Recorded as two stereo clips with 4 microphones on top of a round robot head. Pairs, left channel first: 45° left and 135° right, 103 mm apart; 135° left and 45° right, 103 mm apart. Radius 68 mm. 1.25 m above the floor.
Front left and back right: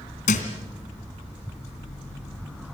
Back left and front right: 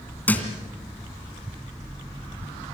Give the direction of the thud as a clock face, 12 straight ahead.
10 o'clock.